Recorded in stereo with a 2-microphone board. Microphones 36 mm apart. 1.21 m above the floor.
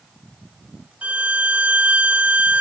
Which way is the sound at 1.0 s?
45° right (ahead or behind).